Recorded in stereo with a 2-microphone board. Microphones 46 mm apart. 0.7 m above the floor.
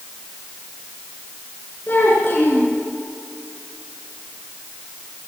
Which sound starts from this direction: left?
A child speaking, at 1.9 s.